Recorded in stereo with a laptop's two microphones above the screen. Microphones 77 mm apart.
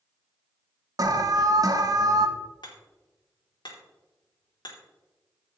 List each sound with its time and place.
1.0 s an alarm: 50° right (ahead or behind), 0.9 m
2.6 s hammering: 70° left (ahead or behind), 2.5 m